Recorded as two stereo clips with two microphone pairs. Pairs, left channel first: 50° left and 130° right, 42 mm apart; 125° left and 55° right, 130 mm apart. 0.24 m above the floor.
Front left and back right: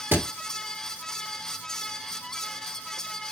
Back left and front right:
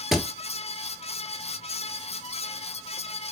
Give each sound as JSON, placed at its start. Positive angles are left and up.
{"t": 0.1, "sound": "a thud", "azimuth_deg": -145, "distance_m": 1.1}